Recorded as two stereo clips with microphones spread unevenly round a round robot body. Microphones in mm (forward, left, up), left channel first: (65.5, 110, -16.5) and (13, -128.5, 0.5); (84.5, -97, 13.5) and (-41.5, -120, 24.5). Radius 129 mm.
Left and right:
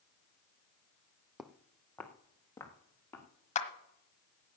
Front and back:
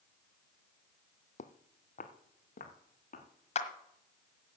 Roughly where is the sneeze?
I don't hear a sneeze.